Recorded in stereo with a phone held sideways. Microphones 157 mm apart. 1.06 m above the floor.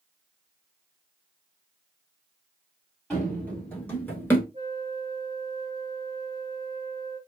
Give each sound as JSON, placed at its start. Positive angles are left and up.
{"t": 3.1, "sound": "running footsteps", "side_deg": 5, "distance_m": 1.5}
{"t": 4.5, "sound": "a flute", "side_deg": -35, "distance_m": 0.9}